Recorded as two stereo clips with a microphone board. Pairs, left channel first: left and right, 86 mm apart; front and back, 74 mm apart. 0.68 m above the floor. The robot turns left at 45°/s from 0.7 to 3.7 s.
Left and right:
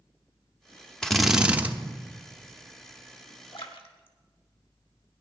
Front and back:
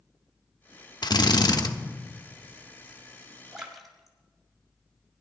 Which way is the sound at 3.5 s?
100° left.